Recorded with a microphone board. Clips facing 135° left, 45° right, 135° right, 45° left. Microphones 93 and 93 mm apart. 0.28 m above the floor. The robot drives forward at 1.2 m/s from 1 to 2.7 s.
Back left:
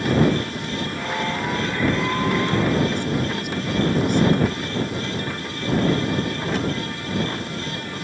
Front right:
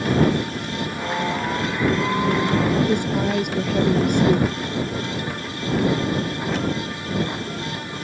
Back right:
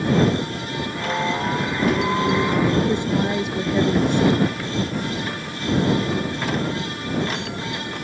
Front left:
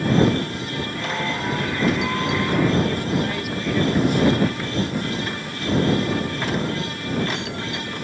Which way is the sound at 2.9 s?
75° right.